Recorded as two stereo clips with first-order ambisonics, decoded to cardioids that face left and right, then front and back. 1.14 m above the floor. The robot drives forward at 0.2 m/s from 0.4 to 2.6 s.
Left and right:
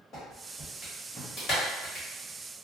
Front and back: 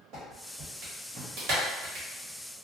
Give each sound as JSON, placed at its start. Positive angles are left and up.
{"t": 0.1, "sound": "a clap", "azimuth_deg": 145, "distance_m": 1.0}